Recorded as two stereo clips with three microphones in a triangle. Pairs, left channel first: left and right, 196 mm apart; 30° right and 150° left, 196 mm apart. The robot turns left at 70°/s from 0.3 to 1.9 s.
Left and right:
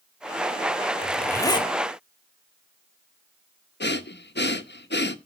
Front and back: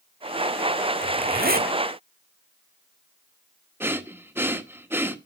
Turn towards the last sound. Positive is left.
turn(degrees=75)